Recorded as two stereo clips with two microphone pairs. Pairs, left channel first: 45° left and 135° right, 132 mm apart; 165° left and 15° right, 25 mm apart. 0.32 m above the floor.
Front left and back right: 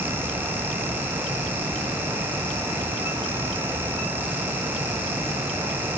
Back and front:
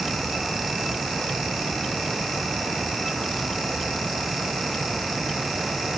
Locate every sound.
Only background noise.